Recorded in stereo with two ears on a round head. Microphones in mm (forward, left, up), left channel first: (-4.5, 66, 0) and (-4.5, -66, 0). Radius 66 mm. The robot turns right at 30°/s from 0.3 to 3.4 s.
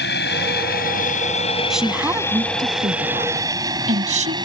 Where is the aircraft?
80° left; by 4.4 s 30° right (ahead or behind).